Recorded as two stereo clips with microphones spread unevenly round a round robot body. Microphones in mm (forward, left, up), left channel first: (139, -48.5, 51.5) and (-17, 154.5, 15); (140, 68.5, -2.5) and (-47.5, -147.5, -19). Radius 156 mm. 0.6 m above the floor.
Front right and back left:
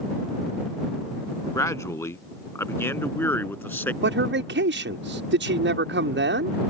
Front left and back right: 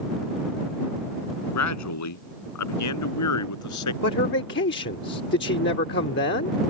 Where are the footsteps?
No footsteps in this recording.